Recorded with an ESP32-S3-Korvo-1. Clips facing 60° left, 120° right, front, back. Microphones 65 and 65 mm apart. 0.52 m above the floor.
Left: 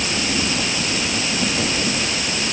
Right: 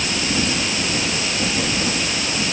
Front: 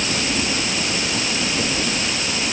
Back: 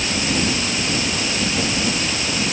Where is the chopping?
I don't hear chopping.